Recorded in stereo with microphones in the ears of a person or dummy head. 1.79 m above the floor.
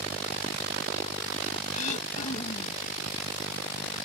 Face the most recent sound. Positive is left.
turn(degrees=45)  # may be behind; listen again after turning